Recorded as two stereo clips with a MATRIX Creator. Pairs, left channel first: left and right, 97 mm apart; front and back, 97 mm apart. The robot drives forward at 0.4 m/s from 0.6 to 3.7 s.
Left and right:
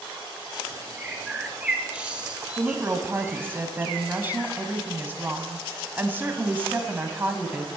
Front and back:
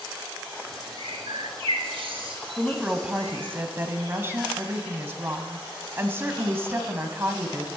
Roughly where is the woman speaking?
Right.